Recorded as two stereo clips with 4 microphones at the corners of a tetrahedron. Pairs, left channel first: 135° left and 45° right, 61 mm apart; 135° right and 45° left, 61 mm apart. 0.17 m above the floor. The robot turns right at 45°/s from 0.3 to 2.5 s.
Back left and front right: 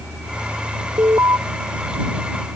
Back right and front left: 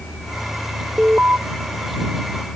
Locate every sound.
1.0 s an alarm: 30° right; by 1.4 s 10° right